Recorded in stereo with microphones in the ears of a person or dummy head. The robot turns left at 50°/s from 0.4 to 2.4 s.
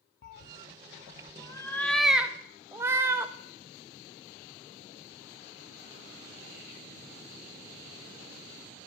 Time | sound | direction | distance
0.2 | a cat meowing | 55° left (ahead or behind) | 0.6 m